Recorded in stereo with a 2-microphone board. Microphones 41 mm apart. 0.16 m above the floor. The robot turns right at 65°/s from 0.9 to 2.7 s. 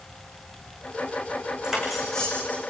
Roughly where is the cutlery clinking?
Ahead.